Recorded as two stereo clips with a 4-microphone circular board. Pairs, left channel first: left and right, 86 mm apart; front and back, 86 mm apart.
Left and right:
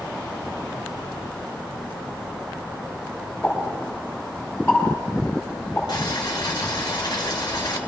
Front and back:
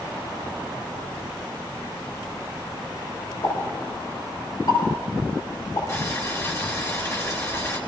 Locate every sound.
3.4 s a pop: 20° left, 6.5 m
5.9 s boiling: 55° left, 3 m